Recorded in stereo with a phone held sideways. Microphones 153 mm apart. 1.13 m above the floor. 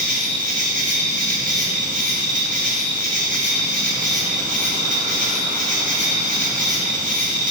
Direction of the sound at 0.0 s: 60° right (ahead or behind).